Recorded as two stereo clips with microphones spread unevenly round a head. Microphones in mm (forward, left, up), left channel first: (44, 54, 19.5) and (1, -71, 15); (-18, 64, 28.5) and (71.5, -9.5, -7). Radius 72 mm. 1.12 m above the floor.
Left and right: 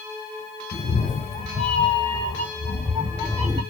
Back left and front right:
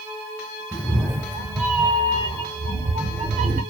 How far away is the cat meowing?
About 1.5 m.